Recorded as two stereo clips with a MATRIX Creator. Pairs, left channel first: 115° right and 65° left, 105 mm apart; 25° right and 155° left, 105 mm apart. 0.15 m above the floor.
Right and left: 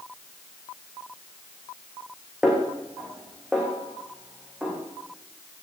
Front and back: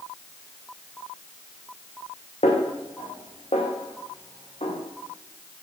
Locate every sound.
2.4 s a snare drum: 15° right, 7.5 m